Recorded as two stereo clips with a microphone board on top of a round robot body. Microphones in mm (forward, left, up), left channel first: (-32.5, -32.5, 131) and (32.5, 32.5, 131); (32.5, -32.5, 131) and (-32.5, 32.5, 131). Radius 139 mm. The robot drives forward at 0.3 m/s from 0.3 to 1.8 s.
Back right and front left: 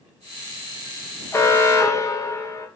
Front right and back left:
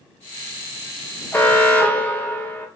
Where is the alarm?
100° right, 1.1 m; by 2.7 s 110° right, 1.1 m.